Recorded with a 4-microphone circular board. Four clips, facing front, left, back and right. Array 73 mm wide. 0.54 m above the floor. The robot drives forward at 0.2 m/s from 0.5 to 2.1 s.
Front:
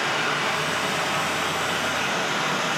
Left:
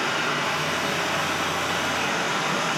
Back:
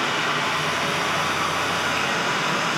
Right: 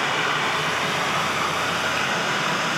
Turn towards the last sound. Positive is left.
turn(degrees=-130)